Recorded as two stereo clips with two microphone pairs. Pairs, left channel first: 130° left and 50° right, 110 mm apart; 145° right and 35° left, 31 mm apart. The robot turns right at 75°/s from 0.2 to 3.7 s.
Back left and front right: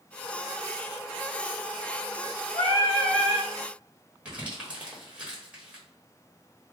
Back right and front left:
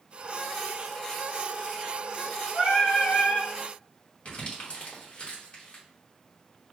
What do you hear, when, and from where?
2.5 s singing: 165° left, 1.8 m; by 3.5 s 125° right, 1.8 m
4.2 s crumpling: 120° right, 1.7 m